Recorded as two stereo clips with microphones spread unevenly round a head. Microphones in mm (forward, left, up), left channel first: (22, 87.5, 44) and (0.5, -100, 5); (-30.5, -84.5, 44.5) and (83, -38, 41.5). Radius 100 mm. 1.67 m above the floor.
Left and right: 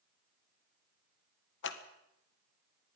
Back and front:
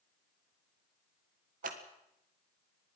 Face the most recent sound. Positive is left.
turn(degrees=55)